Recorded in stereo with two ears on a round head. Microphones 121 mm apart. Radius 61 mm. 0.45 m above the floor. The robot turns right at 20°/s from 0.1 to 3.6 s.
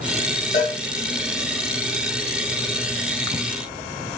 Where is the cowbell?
65° left (ahead or behind), 1.9 m; by 0.8 s 60° left (ahead or behind), 1.9 m.